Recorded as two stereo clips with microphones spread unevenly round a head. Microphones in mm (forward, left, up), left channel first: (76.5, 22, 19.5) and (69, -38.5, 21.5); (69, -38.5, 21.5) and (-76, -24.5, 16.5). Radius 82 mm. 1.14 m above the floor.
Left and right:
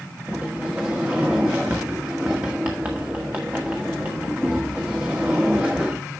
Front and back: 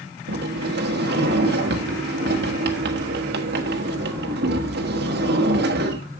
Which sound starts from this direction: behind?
A sliding door, at 0.3 s.